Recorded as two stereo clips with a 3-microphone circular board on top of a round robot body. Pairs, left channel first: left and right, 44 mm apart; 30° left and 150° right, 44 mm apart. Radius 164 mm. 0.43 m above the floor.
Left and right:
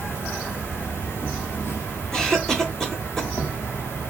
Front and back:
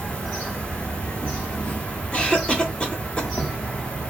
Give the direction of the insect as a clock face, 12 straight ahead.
9 o'clock.